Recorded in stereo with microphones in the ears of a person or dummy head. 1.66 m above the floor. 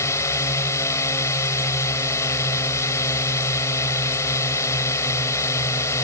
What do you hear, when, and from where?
0.0 s a drone: 20° left (ahead or behind)